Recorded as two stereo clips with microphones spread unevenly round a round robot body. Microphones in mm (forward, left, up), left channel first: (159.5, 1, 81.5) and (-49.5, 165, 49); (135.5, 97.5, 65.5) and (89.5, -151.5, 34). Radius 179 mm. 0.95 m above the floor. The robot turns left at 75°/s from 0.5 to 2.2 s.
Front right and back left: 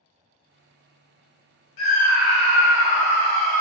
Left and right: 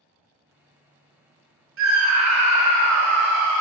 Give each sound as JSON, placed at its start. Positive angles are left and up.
{"t": 1.8, "sound": "a scream", "azimuth_deg": -65, "distance_m": 0.8}